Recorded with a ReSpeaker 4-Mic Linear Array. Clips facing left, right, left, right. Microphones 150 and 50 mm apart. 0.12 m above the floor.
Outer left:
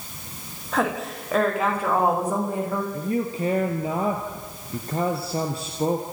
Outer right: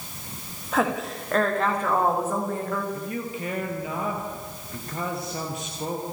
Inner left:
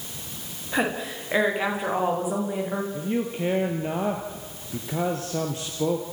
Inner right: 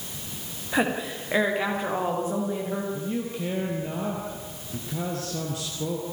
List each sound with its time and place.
0.7 s a woman speaking: centre (ahead or behind), 8.5 m; by 2.8 s 20° left (ahead or behind), 8 m
2.9 s a man speaking: 30° left (ahead or behind), 2.5 m